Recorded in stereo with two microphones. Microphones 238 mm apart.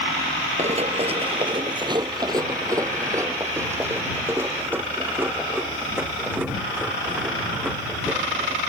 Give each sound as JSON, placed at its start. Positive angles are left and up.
{"t": 0.6, "sound": "running footsteps", "side_deg": -30}